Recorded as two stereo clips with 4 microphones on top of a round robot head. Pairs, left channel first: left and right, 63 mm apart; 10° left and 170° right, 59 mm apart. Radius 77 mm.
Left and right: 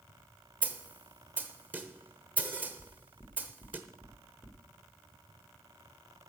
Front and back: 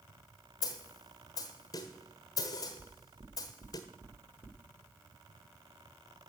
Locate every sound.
0.6 s a snare drum: 25° right, 0.9 m
2.8 s knocking: 160° left, 1.9 m